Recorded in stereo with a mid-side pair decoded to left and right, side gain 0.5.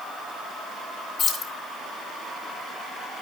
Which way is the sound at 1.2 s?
65° left.